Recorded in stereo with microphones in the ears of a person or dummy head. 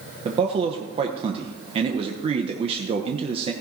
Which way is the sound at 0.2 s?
30° right (ahead or behind).